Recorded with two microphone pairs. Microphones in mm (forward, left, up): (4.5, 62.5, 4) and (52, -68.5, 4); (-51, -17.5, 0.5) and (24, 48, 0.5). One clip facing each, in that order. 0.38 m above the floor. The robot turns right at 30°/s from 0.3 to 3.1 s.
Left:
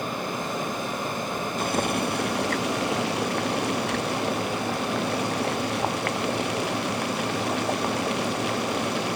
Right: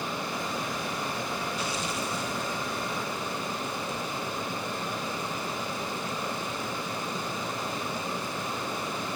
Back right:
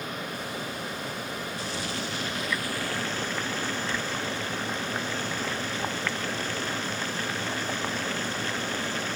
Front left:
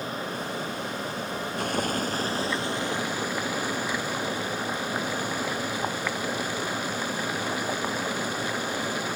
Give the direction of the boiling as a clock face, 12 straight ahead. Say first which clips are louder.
Left 7 dB, front left 9 dB; 10 o'clock.